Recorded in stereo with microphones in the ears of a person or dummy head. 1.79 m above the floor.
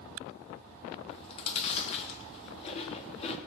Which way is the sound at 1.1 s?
35° left (ahead or behind).